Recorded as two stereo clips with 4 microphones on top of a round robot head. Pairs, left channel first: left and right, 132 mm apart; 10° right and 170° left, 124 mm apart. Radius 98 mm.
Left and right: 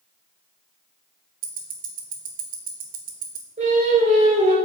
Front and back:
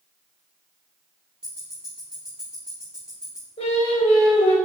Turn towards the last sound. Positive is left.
turn(degrees=-50)